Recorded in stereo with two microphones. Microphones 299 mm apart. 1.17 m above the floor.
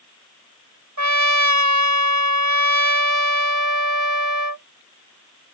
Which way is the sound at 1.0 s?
70° right (ahead or behind).